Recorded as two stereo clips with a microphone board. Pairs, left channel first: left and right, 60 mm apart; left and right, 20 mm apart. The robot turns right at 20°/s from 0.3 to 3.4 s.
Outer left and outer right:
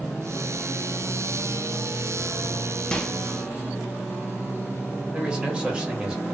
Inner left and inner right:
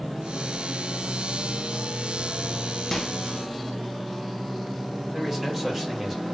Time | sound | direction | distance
2.9 | a microwave | 15° left (ahead or behind) | 0.5 m
5.1 | a man speaking | 15° right (ahead or behind) | 1.1 m